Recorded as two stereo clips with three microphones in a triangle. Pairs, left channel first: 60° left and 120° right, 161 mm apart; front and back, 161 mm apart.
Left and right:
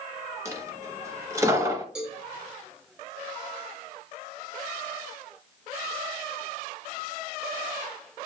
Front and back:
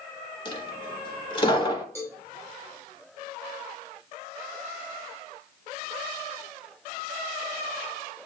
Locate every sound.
0.5 s a dropped coin: 50° right, 0.7 m
1.9 s a cowbell: 45° right, 1.1 m